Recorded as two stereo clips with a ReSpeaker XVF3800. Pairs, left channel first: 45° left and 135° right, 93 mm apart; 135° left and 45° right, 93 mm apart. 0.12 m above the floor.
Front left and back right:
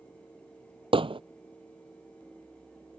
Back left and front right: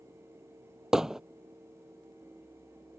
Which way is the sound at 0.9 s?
130° right.